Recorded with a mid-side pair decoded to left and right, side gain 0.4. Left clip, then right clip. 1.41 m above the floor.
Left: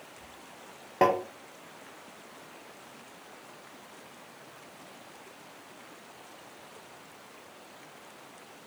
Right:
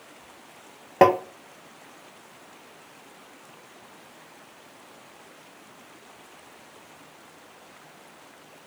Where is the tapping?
55° right, 0.6 m.